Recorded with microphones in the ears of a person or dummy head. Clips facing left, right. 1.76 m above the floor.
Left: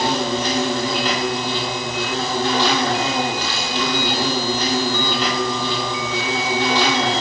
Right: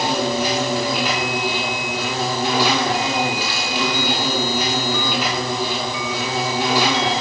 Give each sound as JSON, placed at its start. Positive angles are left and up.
{"t": 0.0, "sound": "an insect", "side_deg": -10, "distance_m": 2.0}